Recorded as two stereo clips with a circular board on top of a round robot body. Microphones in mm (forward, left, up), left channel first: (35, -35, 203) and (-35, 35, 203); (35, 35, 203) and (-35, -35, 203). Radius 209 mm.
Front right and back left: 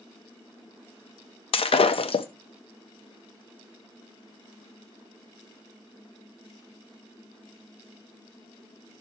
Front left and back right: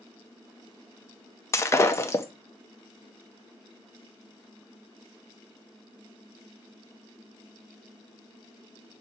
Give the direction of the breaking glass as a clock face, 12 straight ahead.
1 o'clock.